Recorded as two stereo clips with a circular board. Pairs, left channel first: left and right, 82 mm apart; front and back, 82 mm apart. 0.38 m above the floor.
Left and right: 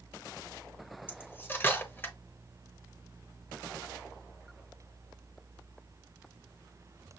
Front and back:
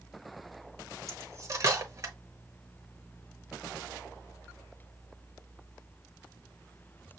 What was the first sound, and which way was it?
Cutlery clinking, 145° left.